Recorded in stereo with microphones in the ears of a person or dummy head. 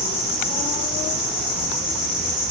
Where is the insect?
5° right (ahead or behind), 6.5 m.